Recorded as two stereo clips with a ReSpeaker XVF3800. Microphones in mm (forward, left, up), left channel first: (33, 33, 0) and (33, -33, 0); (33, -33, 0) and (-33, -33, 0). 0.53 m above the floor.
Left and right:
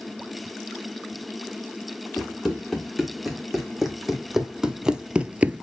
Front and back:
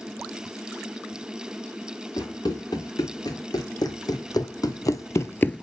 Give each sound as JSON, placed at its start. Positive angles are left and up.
{"t": 2.2, "sound": "running footsteps", "azimuth_deg": 0, "distance_m": 3.0}